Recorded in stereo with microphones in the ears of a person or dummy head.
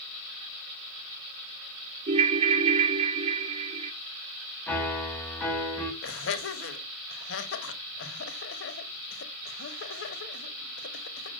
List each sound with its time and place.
2.1 s a ringtone: 30° right (ahead or behind), 0.6 m
4.7 s a piano: 10° left (ahead or behind), 1.2 m
6.0 s laughter: 65° left (ahead or behind), 1.5 m